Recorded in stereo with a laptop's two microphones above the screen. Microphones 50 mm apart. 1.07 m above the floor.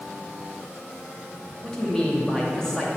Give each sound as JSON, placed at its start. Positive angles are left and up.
{"t": 1.6, "sound": "a man speaking", "side_deg": 15, "distance_m": 2.5}